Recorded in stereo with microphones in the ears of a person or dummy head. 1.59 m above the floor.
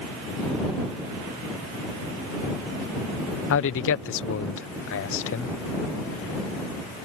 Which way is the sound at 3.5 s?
60° left (ahead or behind).